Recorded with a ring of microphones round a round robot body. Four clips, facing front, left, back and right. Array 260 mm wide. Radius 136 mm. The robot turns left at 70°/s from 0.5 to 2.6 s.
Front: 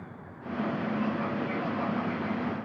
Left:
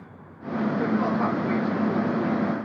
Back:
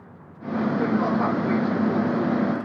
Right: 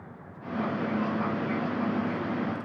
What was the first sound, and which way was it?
Only background noise.